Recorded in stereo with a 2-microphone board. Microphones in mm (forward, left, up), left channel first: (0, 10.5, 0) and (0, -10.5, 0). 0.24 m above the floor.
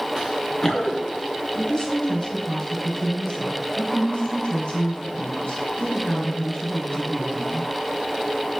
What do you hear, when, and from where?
0.2 s running footsteps: 15° right (ahead or behind), 1.0 m; by 1.2 s 35° left (ahead or behind), 1.8 m
1.6 s a woman speaking: 55° left (ahead or behind), 3.5 m